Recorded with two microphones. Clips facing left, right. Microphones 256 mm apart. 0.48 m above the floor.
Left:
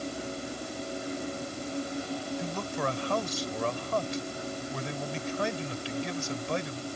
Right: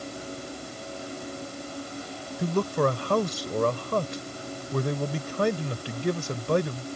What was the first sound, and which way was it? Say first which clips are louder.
A man speaking: right 8 dB; 60° right (ahead or behind).